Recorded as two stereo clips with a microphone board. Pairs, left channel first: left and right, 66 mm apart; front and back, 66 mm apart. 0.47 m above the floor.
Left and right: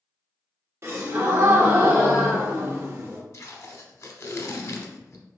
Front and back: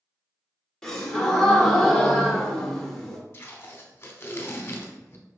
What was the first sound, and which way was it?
A gasp, 80° right.